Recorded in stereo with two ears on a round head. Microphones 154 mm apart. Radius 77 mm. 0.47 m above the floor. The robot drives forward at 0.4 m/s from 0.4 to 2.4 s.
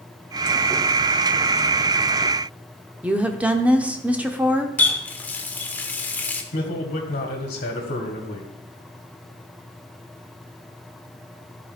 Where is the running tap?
10° left (ahead or behind), 0.8 m.